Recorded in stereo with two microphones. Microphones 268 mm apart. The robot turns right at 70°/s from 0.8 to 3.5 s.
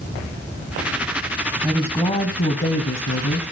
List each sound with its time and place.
1.6 s a woman speaking: 5° right, 1.4 m; by 3.4 s 120° left, 1.4 m